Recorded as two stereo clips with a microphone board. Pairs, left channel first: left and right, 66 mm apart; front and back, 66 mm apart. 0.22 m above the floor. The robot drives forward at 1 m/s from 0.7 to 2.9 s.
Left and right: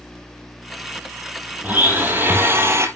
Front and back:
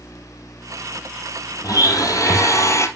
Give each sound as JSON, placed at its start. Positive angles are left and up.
{"t": 1.6, "sound": "a blender", "azimuth_deg": -25, "distance_m": 3.0}